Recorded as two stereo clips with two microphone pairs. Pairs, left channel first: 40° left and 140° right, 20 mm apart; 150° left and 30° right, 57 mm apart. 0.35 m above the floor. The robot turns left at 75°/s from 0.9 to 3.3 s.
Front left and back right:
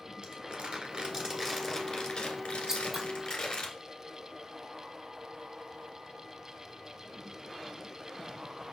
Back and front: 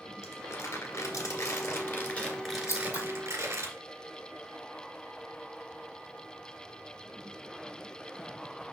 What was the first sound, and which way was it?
Crumpling, straight behind.